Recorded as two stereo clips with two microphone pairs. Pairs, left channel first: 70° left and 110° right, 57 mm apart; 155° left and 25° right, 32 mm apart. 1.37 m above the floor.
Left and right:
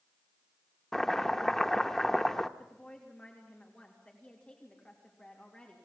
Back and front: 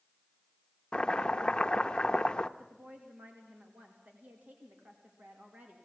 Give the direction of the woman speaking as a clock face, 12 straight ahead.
12 o'clock.